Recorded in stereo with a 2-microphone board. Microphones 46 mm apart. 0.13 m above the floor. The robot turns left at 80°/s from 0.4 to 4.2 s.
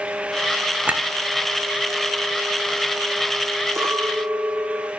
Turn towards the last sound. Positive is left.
turn(degrees=-130)